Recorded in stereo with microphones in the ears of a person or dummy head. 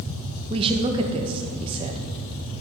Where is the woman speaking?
30° right (ahead or behind), 1.1 m.